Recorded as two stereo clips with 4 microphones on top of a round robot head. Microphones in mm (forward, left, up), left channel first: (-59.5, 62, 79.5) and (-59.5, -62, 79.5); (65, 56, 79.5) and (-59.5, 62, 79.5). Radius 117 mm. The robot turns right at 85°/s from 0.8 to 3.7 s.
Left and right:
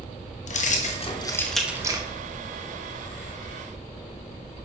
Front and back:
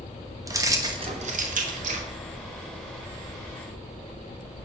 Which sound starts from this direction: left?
Keys jangling, at 0.5 s.